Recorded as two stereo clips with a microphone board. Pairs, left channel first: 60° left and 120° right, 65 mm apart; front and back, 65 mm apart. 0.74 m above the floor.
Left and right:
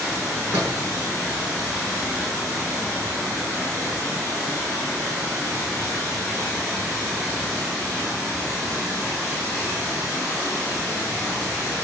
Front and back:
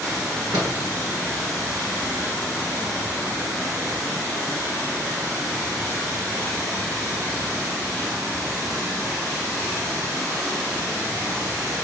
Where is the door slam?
175° right, 9.5 m.